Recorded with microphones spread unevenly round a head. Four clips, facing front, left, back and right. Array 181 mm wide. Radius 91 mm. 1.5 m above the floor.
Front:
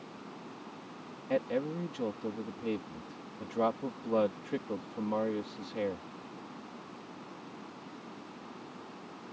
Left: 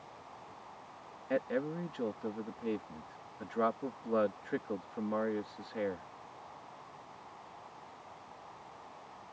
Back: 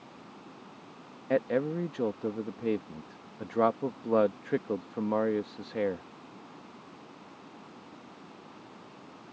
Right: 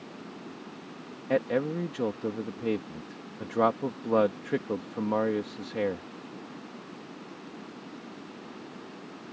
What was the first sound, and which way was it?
Running water, 85° right.